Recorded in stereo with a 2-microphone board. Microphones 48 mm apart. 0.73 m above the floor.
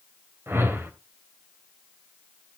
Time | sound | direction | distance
0.5 | a whoosh | 60° right (ahead or behind) | 3 m